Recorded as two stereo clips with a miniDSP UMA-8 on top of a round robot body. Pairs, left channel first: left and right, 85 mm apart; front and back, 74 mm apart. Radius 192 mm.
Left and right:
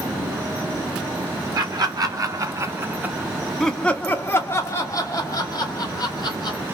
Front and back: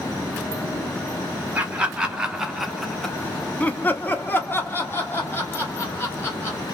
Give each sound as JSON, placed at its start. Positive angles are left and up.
{"t": 1.6, "sound": "laughter", "azimuth_deg": -110, "distance_m": 1.3}